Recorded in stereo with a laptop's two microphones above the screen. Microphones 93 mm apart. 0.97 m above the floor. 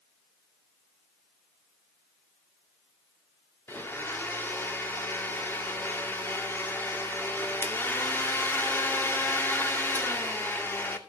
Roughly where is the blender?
Left.